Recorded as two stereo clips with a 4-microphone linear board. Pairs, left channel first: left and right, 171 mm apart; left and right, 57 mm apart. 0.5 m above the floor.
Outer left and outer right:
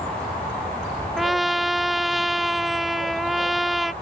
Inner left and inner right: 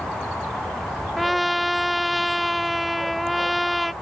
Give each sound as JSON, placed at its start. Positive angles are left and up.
{"t": 1.2, "sound": "a trumpet", "side_deg": 0}